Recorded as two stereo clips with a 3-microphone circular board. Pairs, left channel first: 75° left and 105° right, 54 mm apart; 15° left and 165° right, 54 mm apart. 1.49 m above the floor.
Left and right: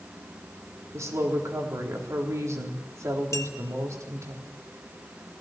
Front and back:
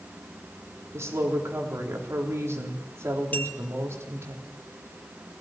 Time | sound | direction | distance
0.9 | a woman speaking | 125° right | 3.5 m
3.3 | a clink | 70° left | 2.5 m